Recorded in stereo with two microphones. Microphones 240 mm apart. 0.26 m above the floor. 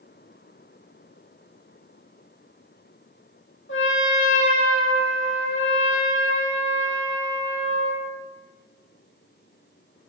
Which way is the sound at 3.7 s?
55° left (ahead or behind).